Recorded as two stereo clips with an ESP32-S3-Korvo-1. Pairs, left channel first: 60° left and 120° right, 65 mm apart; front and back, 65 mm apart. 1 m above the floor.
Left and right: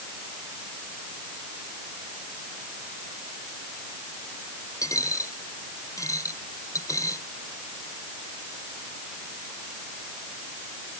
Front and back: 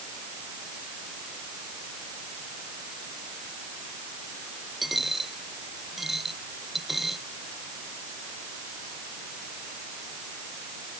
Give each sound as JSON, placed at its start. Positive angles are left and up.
{"t": 4.8, "sound": "a dropped coin", "azimuth_deg": 95}